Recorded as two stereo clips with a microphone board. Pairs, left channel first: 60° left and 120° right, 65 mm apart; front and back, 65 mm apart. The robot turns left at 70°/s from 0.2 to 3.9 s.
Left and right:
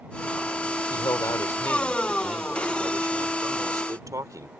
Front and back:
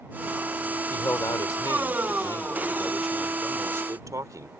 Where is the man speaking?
60° left; by 4.5 s 150° right.